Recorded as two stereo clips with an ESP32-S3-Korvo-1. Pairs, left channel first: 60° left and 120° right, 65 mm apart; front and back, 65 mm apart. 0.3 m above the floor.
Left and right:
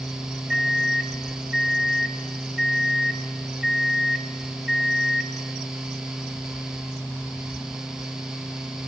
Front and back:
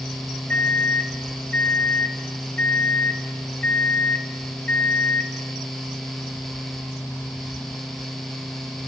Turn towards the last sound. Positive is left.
turn(degrees=-50)